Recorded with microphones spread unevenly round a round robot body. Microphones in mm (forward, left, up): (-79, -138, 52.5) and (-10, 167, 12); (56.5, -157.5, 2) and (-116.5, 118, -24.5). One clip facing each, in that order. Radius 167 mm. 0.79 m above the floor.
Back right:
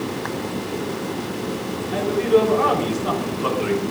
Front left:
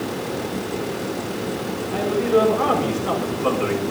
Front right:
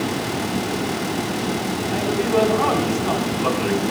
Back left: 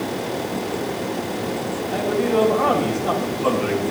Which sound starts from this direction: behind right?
A man speaking, at 1.9 s.